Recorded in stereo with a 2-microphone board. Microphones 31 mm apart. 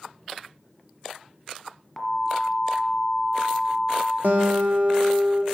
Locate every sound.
2.0 s an alarm: 5° left (ahead or behind), 1.4 m
4.2 s a guitar: 70° right (ahead or behind), 1.0 m